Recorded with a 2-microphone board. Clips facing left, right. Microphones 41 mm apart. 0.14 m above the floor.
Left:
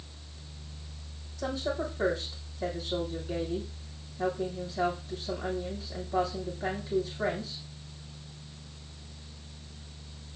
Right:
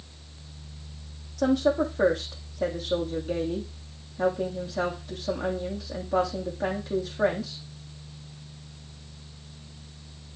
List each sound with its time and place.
1.4 s a woman speaking: 65° right (ahead or behind), 7 m